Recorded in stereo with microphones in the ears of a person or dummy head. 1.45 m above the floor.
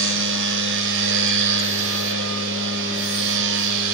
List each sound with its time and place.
0.0 s a machine running: 70° right (ahead or behind), 1.1 m